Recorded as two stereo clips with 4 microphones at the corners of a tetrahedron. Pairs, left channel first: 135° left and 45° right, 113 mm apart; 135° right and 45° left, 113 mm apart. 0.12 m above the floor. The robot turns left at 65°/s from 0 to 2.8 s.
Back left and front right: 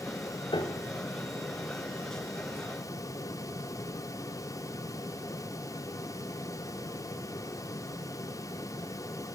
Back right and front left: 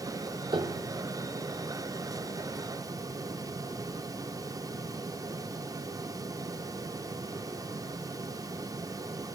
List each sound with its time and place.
0.5 s a piano: 90° left, 0.8 m; by 0.9 s 65° left, 0.8 m